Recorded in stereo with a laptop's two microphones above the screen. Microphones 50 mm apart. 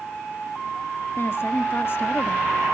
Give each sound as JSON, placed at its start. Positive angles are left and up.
{"t": 1.2, "sound": "a woman speaking", "side_deg": 45, "distance_m": 1.4}